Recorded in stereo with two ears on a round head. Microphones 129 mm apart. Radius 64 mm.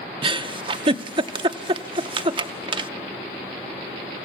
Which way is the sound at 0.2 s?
35° right (ahead or behind).